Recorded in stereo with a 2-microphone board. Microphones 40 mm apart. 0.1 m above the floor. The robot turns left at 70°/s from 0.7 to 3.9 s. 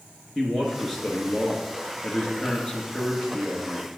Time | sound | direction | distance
0.3 | a man speaking | 175° left | 1.2 m